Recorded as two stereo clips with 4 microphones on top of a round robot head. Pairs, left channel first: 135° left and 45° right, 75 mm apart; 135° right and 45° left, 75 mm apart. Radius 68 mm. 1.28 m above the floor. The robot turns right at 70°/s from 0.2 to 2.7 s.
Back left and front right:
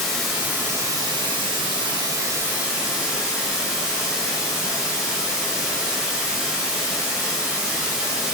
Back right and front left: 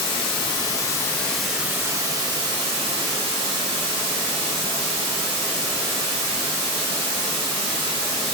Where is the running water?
135° right, 1.5 m; by 8.3 s 40° left, 1.5 m.